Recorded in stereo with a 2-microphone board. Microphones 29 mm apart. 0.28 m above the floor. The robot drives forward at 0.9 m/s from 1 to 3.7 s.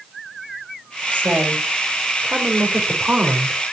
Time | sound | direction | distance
1.1 | a woman speaking | 75° right (ahead or behind) | 5 m